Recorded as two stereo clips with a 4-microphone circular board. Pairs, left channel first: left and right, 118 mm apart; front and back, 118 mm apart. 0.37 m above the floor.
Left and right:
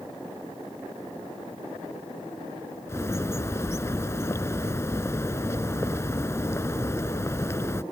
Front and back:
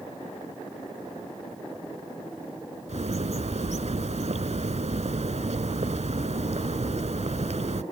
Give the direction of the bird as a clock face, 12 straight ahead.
7 o'clock.